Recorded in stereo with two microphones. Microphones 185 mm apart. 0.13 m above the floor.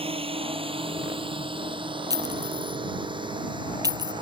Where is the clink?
20° right (ahead or behind).